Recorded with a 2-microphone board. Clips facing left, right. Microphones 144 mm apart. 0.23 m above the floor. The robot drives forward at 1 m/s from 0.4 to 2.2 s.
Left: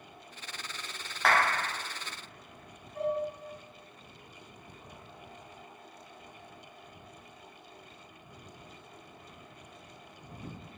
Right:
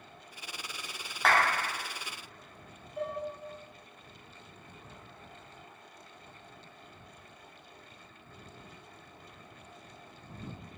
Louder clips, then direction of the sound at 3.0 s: Left 5 dB; 50° left (ahead or behind).